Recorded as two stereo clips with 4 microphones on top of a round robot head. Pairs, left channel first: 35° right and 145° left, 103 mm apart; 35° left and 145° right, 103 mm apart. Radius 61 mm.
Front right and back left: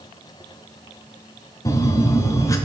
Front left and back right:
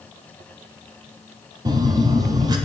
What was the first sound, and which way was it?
A phone buzzing, 95° right.